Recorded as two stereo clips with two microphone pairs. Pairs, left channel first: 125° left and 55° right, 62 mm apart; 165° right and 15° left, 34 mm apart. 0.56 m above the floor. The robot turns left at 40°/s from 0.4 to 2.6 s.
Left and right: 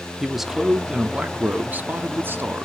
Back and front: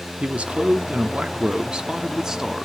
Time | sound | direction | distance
0.2 | a man speaking | 25° left | 0.8 m